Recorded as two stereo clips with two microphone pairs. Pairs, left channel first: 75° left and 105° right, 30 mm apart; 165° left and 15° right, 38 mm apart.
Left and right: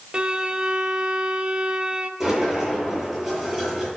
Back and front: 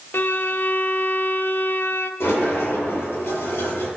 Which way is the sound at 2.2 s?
170° left.